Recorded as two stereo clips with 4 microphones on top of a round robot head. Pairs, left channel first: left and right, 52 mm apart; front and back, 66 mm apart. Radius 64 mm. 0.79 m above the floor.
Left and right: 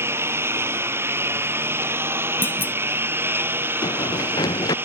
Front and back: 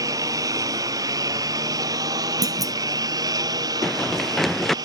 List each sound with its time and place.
0.0 s a lawn mower: 135° right; by 4.8 s 140° right
2.4 s a clunk: 145° left
3.8 s running footsteps: 85° left